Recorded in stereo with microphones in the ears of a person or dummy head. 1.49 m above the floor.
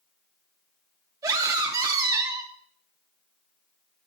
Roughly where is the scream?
Centre.